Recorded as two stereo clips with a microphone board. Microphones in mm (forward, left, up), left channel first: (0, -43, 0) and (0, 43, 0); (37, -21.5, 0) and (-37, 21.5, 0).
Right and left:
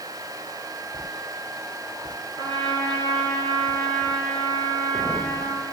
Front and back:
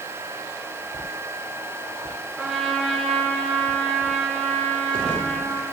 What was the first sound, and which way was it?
A trumpet, 70° left.